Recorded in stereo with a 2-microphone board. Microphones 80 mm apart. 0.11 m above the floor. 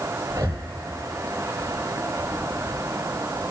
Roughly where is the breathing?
Right.